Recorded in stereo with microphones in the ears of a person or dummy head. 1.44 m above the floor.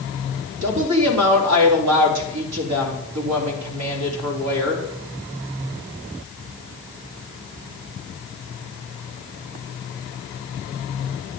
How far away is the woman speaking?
About 3 m.